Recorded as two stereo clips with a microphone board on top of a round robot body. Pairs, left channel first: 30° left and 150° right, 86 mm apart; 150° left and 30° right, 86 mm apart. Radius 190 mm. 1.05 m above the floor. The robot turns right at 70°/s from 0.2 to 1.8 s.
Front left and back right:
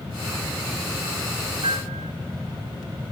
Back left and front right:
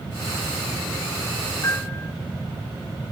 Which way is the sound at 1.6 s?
155° right.